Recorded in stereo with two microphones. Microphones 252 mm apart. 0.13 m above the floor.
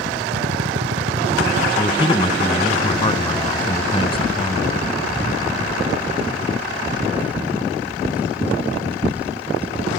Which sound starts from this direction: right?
A drill, at 0.3 s.